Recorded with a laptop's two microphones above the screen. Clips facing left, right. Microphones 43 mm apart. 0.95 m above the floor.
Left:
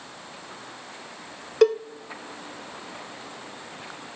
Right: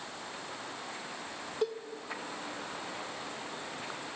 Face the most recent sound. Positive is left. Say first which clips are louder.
# left 15 dB
turn(degrees=75)  # may be behind; listen again after turning